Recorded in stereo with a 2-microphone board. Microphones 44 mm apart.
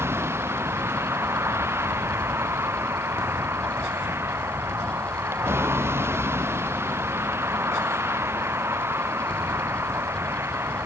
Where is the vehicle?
70° right (ahead or behind).